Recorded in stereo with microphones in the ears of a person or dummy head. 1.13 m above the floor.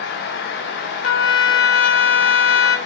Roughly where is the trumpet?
Left.